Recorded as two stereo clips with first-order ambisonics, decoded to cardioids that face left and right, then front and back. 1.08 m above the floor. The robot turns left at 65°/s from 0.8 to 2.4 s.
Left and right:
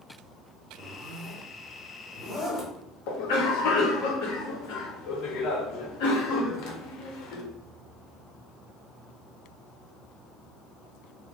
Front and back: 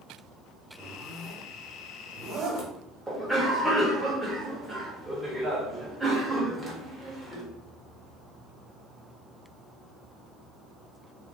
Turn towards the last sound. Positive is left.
turn(degrees=95)